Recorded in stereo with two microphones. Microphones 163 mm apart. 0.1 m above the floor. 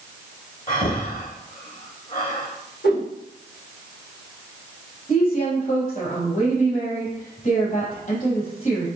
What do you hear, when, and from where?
0.7 s breathing: 50° left (ahead or behind), 2.5 m
2.8 s a whoosh: 80° left, 2.5 m
5.1 s a woman speaking: 45° left (ahead or behind), 3.5 m